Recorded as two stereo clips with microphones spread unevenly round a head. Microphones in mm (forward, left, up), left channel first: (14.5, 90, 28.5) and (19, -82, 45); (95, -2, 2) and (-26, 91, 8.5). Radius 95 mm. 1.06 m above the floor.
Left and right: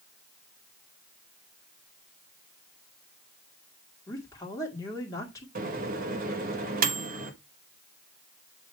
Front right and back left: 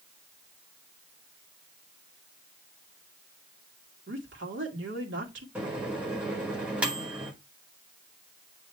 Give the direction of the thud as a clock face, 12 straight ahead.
I don't hear a thud.